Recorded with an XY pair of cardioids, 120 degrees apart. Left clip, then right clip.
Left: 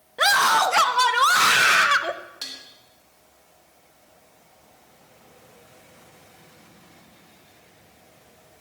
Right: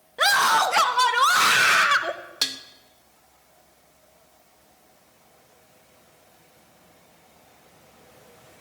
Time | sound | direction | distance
0.2 | a scream | 5° left | 1.0 m
2.4 | dishes clattering | 60° right | 1.2 m